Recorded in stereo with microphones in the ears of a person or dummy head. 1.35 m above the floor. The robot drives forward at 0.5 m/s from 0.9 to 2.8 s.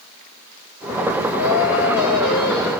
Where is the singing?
85° left, 0.8 m; by 2.7 s 50° left (ahead or behind), 1.1 m.